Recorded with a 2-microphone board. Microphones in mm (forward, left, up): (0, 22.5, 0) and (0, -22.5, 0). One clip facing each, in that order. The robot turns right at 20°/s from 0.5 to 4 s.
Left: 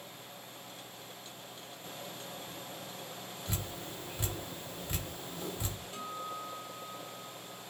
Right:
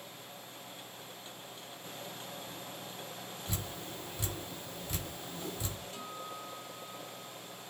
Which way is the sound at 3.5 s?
40° left (ahead or behind).